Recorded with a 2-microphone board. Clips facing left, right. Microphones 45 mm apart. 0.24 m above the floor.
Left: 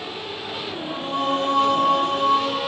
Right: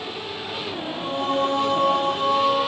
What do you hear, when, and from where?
0.9 s singing: 50° left (ahead or behind), 3 m